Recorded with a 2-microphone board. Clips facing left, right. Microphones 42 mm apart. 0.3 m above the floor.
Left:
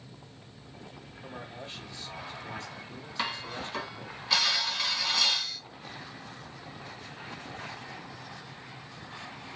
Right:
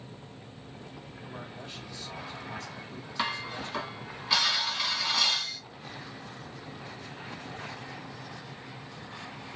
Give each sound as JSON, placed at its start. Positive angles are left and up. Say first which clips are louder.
{"t": 1.2, "sound": "a man speaking", "louder": "left 1 dB", "side_deg": 35, "distance_m": 1.8}
{"t": 3.2, "sound": "dishes clattering", "louder": "right 2 dB", "side_deg": 0, "distance_m": 1.5}